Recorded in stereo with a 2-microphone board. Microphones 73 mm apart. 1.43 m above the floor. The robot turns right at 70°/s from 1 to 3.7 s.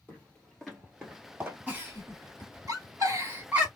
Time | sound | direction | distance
0.1 | footsteps | 20° left (ahead or behind) | 1.7 m
1.7 | a giggle | 20° right (ahead or behind) | 1.8 m